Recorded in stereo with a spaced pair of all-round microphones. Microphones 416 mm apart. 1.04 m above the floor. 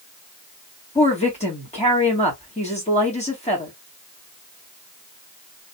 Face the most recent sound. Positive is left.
turn(degrees=15)  # may be behind; listen again after turning